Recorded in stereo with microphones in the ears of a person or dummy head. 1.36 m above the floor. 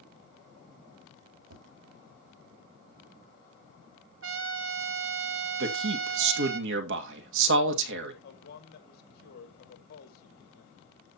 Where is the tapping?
85° right, 6 m.